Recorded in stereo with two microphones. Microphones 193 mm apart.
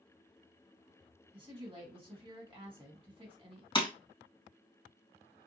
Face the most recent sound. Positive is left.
turn(degrees=25)  # may be behind; listen again after turning